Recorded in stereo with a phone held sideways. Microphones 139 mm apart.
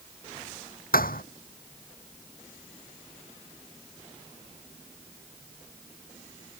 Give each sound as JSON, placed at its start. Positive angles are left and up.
{"t": 0.9, "sound": "a thud", "side_deg": 80}